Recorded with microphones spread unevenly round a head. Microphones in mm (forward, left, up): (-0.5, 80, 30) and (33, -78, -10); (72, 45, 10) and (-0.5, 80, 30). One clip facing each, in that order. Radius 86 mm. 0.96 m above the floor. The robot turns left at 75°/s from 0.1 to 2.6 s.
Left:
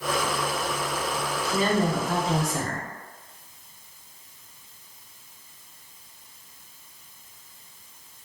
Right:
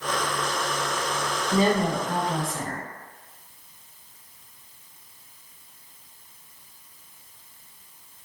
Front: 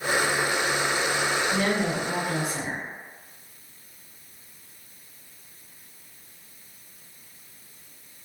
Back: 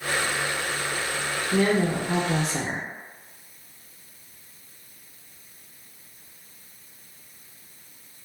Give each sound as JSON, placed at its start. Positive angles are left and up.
{"t": 1.5, "sound": "a woman speaking", "azimuth_deg": -130, "distance_m": 0.5}